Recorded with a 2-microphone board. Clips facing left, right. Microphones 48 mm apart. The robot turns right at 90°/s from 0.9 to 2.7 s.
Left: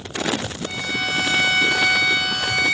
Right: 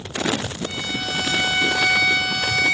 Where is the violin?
145° left, 5.5 m; by 2.7 s 50° right, 5.5 m.